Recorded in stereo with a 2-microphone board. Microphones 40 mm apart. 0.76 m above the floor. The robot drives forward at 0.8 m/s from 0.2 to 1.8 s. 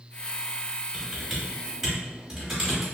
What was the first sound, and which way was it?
Typing on a keyboard, centre (ahead or behind).